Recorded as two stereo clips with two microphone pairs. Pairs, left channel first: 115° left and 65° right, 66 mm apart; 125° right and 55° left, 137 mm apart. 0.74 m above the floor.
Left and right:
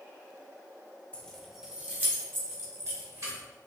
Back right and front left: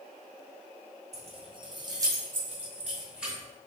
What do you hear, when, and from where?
1.1 s keys jangling: 45° left, 0.6 m; by 3.4 s 30° right, 1.3 m